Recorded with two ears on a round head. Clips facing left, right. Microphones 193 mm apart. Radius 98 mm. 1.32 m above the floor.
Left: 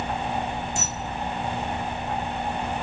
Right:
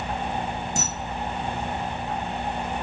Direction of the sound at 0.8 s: 35° right (ahead or behind).